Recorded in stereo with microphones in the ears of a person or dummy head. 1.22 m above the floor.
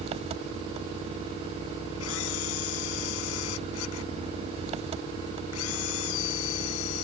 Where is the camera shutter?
85° left.